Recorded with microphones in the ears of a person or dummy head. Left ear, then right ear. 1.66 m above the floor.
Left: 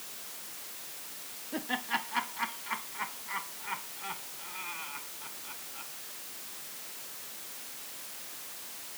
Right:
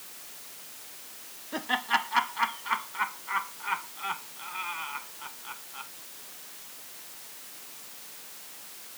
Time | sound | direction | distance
1.5 | laughter | 40° right (ahead or behind) | ?